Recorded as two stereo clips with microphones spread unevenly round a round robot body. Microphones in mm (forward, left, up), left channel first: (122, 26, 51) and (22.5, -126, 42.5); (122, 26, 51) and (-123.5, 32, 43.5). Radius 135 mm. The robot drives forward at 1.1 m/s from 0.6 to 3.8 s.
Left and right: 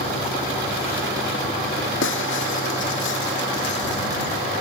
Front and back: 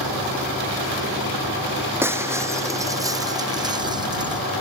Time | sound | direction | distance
2.0 | breaking glass | 100° left | ?